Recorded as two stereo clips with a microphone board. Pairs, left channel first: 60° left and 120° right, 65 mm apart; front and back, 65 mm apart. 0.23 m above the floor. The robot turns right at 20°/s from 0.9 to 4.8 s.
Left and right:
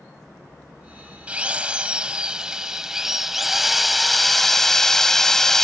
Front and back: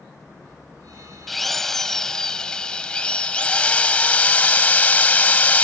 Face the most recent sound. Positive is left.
turn(degrees=-15)